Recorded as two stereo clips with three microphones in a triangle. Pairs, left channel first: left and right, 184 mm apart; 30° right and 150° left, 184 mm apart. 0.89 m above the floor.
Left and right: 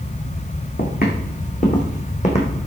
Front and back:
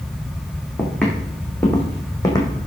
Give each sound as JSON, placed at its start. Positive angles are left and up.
{"t": 0.8, "sound": "footsteps", "azimuth_deg": 55, "distance_m": 4.5}